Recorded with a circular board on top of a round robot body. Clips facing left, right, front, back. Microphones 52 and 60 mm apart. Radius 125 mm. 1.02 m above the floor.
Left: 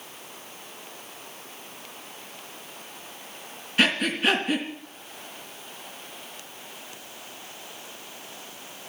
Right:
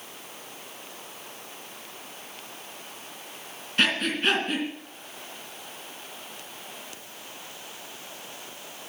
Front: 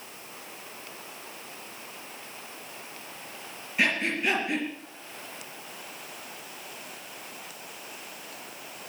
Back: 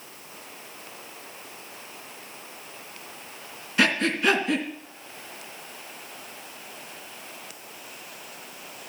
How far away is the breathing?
About 3 m.